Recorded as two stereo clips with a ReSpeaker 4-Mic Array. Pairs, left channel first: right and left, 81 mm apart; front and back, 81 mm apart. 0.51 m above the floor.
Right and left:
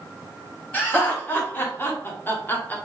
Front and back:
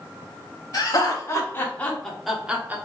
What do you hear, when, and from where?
0.7 s laughter: 25° right, 1.7 m; by 2.8 s 135° right, 1.2 m